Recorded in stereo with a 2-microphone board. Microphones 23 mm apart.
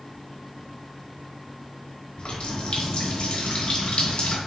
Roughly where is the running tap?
Left.